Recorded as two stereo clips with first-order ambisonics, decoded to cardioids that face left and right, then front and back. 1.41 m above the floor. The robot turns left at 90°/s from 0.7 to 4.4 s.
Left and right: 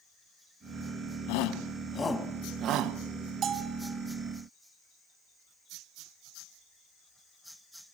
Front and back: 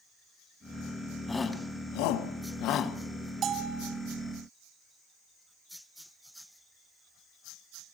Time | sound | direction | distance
1.3 | a shout | 85° left | 1.5 m
3.4 | a bell | 135° right | 1.8 m